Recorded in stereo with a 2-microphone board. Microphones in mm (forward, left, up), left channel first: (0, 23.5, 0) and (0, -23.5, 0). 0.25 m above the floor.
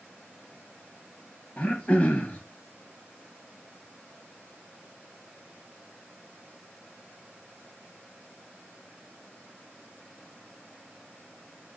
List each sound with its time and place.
1.6 s throat clearing: 30° left (ahead or behind), 1.0 m